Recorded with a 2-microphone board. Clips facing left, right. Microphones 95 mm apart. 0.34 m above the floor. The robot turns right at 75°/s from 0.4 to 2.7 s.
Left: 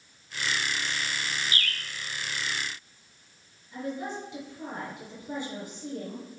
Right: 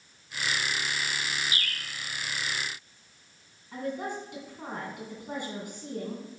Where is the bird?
65° left (ahead or behind), 0.9 m; by 1.8 s 55° left (ahead or behind), 0.9 m.